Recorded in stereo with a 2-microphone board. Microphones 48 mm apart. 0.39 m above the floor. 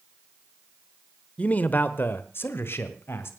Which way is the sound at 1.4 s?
25° left (ahead or behind).